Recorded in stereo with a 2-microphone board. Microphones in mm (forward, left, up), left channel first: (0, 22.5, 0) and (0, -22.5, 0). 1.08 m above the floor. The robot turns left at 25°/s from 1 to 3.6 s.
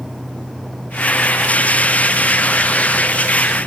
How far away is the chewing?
I don't hear chewing.